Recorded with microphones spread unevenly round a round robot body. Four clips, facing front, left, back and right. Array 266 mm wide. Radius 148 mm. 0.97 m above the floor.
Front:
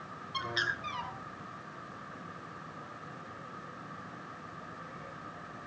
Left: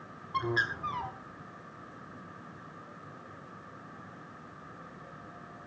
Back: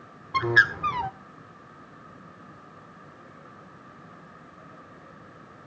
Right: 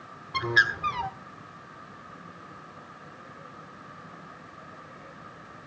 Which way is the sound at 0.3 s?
165° right.